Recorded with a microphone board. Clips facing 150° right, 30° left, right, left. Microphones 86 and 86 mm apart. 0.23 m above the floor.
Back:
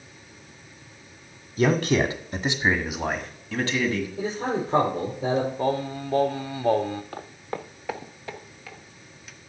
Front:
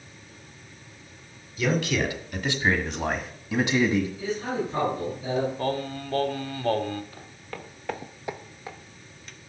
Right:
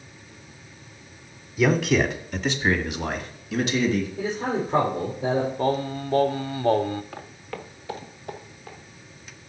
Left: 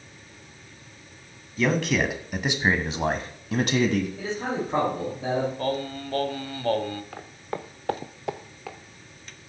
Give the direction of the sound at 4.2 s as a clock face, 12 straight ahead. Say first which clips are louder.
Back 2 dB, right 3 dB; 6 o'clock.